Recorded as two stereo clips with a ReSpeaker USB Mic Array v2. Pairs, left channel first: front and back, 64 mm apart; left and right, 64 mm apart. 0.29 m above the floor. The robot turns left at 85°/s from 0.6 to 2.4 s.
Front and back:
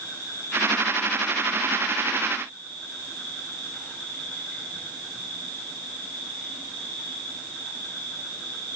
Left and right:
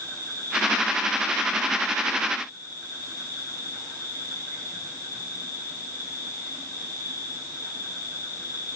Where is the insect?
135° right, 8.5 m; by 8.8 s 70° left, 8.5 m.